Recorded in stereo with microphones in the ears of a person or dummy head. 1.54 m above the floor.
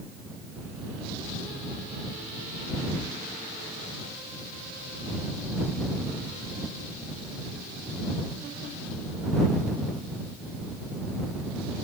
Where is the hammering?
I don't hear hammering.